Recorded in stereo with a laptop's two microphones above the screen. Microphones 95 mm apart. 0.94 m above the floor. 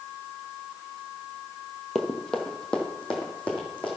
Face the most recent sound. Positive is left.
turn(degrees=10)  # may be behind; listen again after turning